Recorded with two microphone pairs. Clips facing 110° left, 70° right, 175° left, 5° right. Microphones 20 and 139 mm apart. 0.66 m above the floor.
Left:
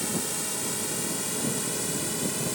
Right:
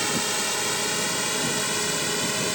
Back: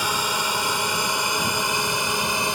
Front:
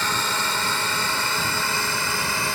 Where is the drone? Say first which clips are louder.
Right 6 dB, back 1 dB; 105° right; by 2.5 s 115° right.